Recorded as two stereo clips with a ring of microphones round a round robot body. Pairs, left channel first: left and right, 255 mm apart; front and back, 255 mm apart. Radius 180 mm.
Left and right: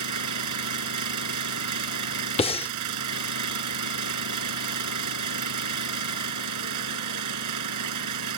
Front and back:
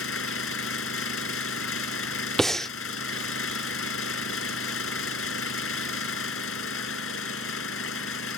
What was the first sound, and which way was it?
An engine running, 55° right.